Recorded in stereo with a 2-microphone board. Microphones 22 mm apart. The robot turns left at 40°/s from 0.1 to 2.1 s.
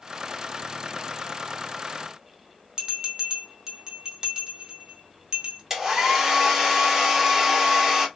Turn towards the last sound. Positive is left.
turn(degrees=-20)  # may be behind; listen again after turning